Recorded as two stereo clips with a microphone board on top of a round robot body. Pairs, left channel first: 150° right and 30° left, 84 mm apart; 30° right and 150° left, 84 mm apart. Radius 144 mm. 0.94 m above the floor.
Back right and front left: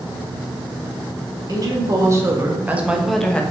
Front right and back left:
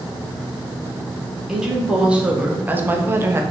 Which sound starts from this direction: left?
A woman speaking, at 1.5 s.